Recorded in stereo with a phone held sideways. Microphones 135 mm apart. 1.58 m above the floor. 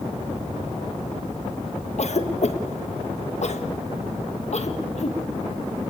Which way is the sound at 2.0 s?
55° left (ahead or behind).